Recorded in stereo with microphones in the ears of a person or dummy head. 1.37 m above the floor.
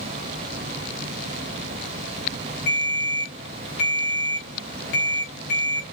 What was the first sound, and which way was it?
A ringtone, 60° left (ahead or behind).